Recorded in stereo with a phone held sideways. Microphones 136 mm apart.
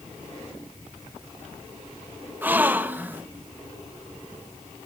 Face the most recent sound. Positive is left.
turn(degrees=-15)  # may be behind; listen again after turning